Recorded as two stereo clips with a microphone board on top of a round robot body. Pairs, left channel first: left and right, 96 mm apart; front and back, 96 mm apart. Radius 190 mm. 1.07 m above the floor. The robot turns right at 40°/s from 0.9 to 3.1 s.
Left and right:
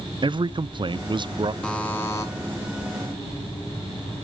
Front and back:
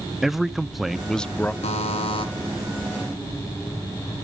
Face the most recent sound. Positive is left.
turn(degrees=70)